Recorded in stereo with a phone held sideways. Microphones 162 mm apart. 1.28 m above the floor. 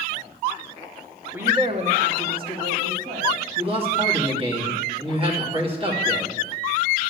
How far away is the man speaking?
About 2.5 m.